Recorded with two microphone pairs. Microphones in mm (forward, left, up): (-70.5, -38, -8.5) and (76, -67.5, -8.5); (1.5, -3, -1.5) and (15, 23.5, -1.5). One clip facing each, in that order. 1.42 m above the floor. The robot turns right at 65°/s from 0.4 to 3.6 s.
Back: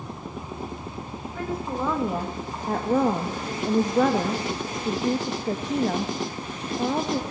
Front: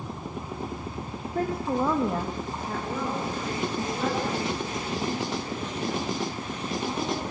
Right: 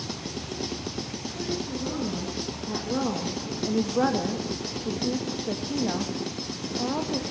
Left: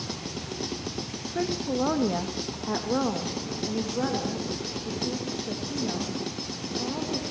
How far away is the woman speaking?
About 2 m.